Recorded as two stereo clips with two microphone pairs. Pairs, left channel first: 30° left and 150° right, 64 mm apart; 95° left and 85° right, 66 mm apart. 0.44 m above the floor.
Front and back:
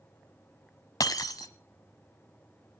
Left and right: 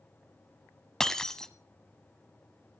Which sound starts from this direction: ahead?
Breaking glass, at 1.0 s.